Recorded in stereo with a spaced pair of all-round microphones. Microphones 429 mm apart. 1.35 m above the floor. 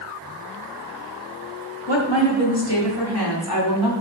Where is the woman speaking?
80° left, 1.7 m; by 3.9 s 55° left (ahead or behind), 2.5 m.